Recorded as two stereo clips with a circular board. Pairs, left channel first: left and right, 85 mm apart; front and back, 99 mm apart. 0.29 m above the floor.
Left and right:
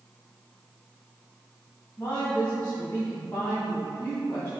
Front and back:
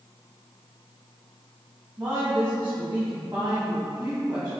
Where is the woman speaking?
120° left, 1.5 m.